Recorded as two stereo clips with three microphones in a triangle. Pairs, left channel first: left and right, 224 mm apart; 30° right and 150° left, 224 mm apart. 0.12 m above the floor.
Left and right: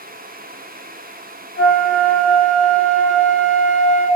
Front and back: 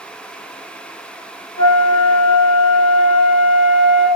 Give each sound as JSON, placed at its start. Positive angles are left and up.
{"t": 1.6, "sound": "a flute", "azimuth_deg": 0, "distance_m": 1.3}